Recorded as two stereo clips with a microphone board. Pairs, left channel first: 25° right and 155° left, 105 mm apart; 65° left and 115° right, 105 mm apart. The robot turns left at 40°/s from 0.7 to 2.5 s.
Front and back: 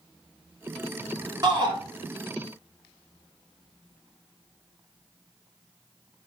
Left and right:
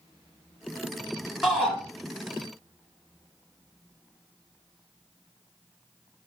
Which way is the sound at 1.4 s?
160° left.